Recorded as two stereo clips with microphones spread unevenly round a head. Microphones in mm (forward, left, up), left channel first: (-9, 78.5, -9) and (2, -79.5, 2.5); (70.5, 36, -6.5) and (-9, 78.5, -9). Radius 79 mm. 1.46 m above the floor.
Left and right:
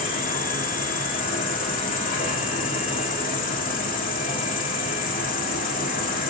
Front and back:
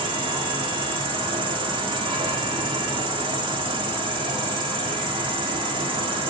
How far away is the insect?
About 2.0 m.